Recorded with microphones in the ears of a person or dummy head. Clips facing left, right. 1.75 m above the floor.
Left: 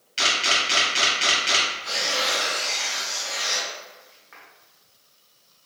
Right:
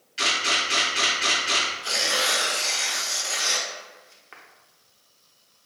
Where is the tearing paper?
45° right (ahead or behind), 0.6 m.